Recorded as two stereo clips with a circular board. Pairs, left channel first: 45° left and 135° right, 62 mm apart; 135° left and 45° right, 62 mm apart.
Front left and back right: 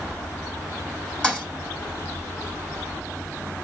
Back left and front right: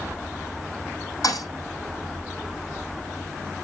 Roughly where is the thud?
Behind left.